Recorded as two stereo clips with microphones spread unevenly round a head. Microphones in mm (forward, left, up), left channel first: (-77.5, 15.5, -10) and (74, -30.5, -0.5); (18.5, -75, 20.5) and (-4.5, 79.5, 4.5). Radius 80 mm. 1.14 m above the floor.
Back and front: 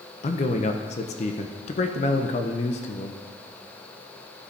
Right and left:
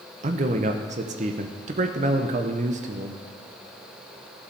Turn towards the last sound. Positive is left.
turn(degrees=125)